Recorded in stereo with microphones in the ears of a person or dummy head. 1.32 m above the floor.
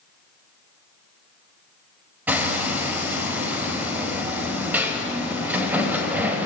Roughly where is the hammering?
Centre.